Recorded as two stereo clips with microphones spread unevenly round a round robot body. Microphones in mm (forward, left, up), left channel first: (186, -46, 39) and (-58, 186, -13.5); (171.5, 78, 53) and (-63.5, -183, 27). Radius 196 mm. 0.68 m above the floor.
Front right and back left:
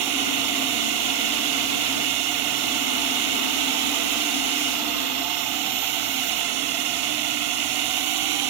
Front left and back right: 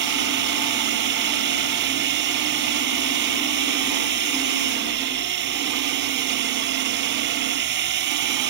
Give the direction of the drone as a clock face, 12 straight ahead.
6 o'clock.